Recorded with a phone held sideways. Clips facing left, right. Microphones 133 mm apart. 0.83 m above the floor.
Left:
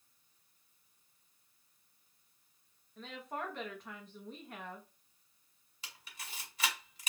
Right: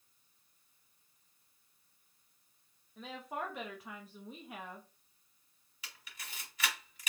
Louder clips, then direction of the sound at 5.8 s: Left 1 dB; 30° left (ahead or behind).